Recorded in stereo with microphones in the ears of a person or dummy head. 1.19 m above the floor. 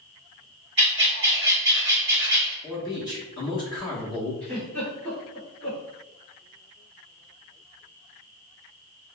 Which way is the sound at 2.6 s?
20° left (ahead or behind).